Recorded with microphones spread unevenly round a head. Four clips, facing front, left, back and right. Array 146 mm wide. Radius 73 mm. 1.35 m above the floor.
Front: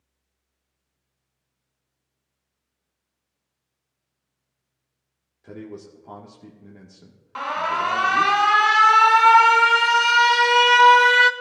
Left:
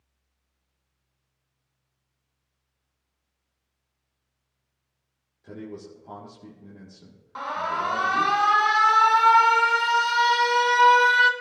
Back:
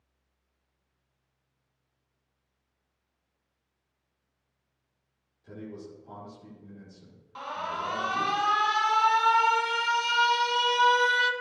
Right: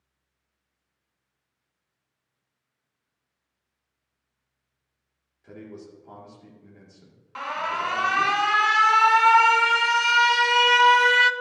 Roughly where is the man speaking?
Ahead.